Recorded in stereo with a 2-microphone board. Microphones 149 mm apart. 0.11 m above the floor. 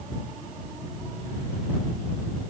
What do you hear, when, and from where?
Only background noise.